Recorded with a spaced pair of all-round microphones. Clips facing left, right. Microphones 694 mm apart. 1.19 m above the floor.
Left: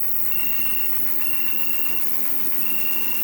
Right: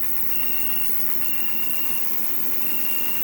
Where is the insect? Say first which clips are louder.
Right 2 dB; 25° left (ahead or behind), 0.8 m.